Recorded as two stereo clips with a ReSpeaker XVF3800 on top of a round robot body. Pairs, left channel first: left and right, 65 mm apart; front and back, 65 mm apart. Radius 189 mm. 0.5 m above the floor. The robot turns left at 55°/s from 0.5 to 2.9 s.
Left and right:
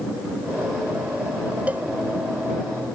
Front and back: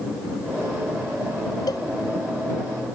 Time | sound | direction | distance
1.7 | a cowbell | 20° right | ?